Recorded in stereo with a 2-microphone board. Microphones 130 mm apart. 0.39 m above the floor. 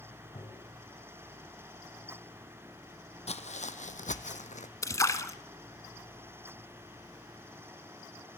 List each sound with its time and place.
0.3 s tapping: 45° left (ahead or behind), 3.5 m
3.3 s footsteps: 55° left (ahead or behind), 0.9 m; by 4.7 s 65° left (ahead or behind), 1.3 m
4.8 s a splash: 25° left (ahead or behind), 1.2 m